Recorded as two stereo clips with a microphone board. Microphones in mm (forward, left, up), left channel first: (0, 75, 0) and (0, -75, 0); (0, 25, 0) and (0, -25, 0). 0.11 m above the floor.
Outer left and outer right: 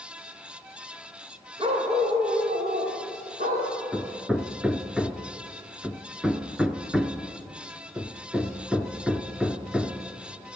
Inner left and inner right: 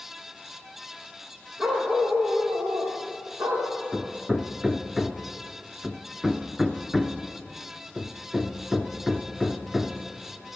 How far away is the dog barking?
About 3.5 m.